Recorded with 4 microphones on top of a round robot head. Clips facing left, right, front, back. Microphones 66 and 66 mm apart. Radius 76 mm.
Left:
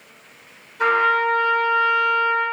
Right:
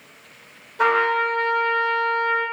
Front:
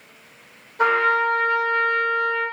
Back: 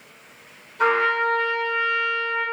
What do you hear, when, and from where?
0.8 s a trumpet: 60° right, 1.1 m